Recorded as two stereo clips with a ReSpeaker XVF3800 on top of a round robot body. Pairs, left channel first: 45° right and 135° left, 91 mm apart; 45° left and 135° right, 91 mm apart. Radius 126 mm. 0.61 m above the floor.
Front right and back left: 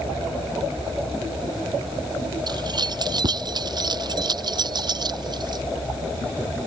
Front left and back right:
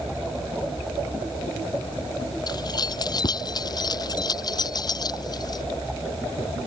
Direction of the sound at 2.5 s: 90° left.